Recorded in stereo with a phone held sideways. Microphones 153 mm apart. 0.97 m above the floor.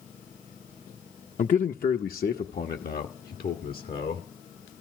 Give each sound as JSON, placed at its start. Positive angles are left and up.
{"t": 1.4, "sound": "a man speaking", "side_deg": 55, "distance_m": 0.6}